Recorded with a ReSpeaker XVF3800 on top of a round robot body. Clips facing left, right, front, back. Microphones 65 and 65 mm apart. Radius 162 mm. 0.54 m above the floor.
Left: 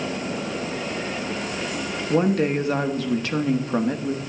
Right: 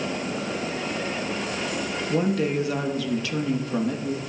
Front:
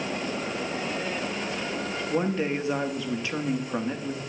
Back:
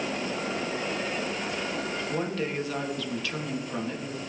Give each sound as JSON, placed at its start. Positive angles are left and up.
{"t": 2.1, "sound": "a woman speaking", "azimuth_deg": 60, "distance_m": 1.2}